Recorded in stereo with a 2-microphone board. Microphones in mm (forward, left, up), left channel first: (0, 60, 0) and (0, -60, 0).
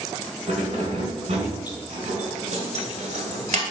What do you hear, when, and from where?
0.5 s keys jangling: 55° right (ahead or behind), 4 m; by 3.6 s 65° right (ahead or behind), 1.7 m